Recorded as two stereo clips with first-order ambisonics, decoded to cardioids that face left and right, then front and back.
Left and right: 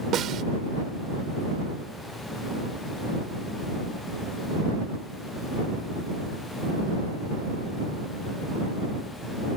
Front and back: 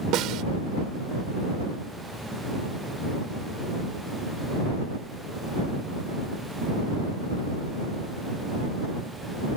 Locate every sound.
0.1 s a snare drum: 140° right